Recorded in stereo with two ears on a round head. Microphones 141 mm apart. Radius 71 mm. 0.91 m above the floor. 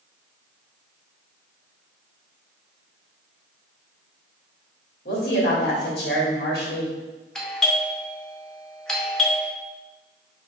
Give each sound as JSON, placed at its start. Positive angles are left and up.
{"t": 5.0, "sound": "a woman speaking", "side_deg": 65, "distance_m": 1.8}
{"t": 7.3, "sound": "a doorbell", "side_deg": 5, "distance_m": 0.7}